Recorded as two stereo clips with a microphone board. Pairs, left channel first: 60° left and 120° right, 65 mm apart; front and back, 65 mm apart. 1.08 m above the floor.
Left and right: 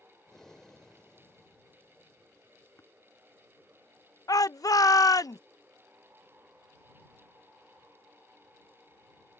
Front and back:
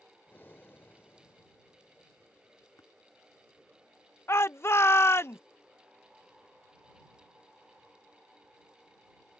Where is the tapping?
20° left.